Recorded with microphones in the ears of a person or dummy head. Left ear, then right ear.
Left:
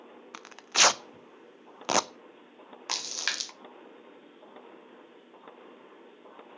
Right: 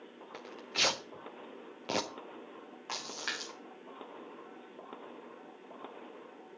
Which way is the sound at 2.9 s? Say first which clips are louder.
Left 7 dB; 65° left (ahead or behind).